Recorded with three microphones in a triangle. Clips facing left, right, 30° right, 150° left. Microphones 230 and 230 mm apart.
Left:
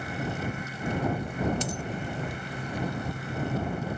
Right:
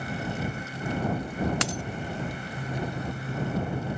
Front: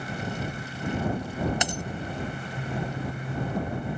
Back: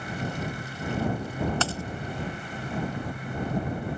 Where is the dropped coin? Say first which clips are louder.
Right 1 dB, even; 105° right.